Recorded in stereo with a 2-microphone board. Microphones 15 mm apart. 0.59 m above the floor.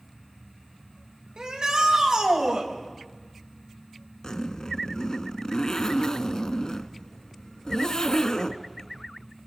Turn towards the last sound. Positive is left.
turn(degrees=55)  # may be behind; listen again after turning